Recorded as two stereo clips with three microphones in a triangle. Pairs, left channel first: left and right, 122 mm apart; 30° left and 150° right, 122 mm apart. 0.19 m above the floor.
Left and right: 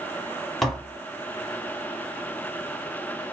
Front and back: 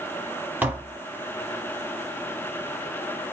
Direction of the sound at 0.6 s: 175° left.